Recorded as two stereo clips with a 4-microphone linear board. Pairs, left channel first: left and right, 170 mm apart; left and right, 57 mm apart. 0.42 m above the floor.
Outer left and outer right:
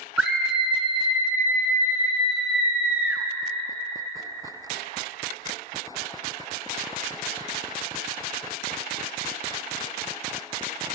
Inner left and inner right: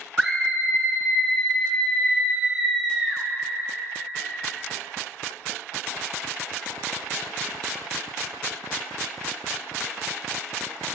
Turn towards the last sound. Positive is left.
turn(degrees=-5)  # may be behind; listen again after turning